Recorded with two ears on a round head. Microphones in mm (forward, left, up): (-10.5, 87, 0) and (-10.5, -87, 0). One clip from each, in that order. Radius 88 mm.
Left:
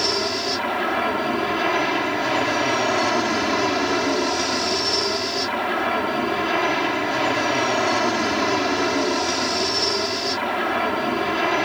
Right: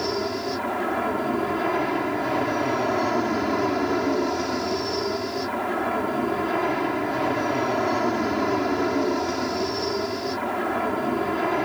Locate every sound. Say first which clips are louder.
0.0 s an aircraft: left 4 dB; 65° left (ahead or behind)